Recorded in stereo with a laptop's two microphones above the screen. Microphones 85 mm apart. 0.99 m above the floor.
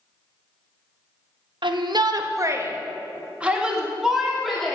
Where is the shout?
65° right (ahead or behind), 0.8 m; by 4.8 s centre (ahead or behind), 1.9 m.